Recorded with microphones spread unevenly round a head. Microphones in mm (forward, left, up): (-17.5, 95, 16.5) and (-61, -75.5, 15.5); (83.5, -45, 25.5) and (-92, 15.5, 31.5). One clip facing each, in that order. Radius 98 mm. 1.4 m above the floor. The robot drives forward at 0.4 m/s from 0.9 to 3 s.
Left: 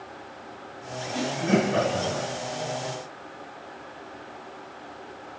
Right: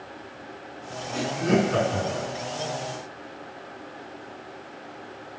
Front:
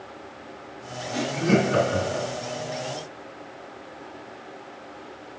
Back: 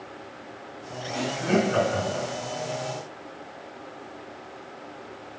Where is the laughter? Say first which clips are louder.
Right 1 dB, front 2 dB; 55° right, 4 m; by 2.3 s 60° right, 3.5 m.